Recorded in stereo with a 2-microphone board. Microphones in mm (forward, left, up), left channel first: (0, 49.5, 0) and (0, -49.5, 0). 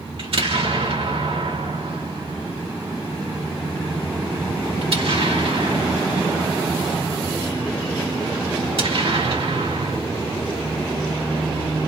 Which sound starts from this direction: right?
An explosion, at 0.2 s.